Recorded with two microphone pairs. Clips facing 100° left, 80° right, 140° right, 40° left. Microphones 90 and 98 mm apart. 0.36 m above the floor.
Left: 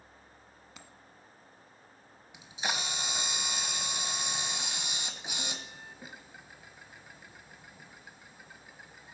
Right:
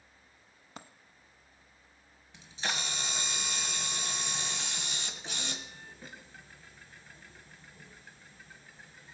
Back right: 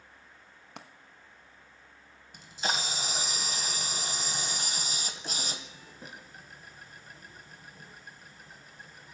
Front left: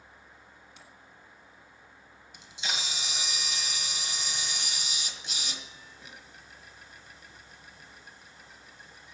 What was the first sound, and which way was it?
A dropped coin, 125° right.